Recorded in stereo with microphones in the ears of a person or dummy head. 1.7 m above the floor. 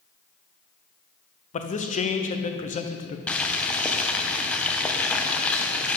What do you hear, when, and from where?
1.5 s a man speaking: 35° left (ahead or behind), 0.7 m
3.3 s boiling: 10° left (ahead or behind), 0.7 m